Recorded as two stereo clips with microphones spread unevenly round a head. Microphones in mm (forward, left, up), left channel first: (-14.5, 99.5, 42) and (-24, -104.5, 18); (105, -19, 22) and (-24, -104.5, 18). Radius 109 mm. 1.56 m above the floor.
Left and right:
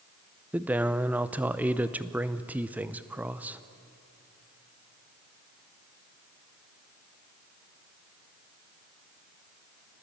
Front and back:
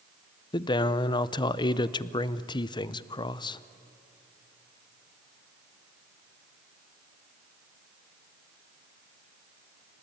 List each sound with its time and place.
0.5 s a man speaking: 5° right, 0.5 m